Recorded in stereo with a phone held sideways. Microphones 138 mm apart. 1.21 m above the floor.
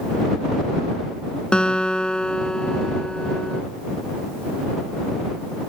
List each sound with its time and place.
1.5 s a guitar: 5° left (ahead or behind)